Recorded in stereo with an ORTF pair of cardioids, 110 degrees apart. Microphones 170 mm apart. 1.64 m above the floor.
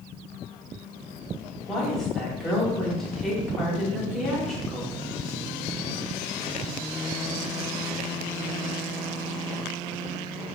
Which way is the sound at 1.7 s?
Straight ahead.